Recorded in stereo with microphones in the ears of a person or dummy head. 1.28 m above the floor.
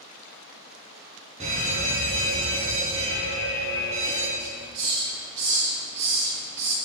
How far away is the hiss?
About 2 m.